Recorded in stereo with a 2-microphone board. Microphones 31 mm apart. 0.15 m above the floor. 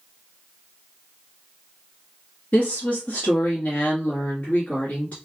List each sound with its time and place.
2.5 s a woman speaking: 50° left (ahead or behind), 1.7 m